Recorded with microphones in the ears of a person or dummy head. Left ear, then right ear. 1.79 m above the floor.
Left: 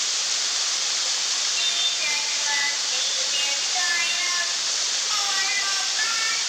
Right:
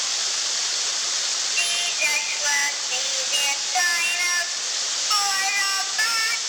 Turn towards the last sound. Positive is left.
turn(degrees=-35)  # may be behind; listen again after turning